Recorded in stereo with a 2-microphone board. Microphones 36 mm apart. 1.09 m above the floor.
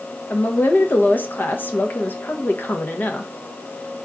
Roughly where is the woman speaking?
Left.